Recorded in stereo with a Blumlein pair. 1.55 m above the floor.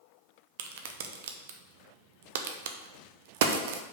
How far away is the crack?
About 0.9 m.